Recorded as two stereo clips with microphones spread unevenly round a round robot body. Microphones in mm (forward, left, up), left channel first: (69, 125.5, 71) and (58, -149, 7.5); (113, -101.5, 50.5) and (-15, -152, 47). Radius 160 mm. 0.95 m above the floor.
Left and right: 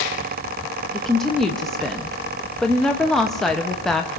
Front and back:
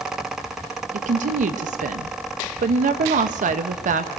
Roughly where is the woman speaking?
Behind.